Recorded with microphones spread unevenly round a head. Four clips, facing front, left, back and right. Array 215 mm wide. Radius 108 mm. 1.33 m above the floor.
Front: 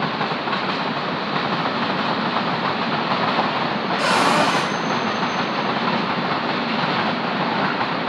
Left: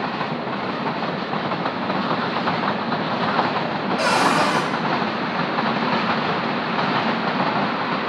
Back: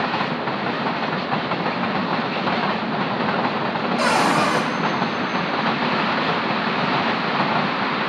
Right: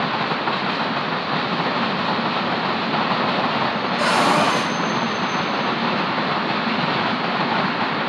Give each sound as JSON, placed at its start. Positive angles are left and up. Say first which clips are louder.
{"t": 4.0, "sound": "a cupboard door", "louder": "right 1 dB, front 1 dB", "azimuth_deg": 145, "distance_m": 0.9}